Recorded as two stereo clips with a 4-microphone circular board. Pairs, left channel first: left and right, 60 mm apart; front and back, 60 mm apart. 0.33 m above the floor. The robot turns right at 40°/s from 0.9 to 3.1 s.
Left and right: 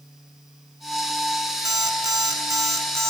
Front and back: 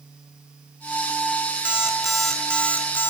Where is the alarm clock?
105° right, 2.5 m; by 3.1 s 50° right, 2.5 m.